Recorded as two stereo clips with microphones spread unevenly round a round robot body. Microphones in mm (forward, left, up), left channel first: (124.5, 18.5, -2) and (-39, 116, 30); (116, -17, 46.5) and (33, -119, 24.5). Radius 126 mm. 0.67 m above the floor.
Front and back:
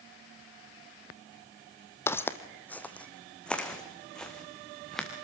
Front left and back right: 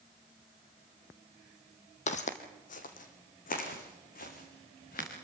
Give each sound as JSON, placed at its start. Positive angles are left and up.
{"t": 2.1, "sound": "footsteps", "azimuth_deg": 50, "distance_m": 1.3}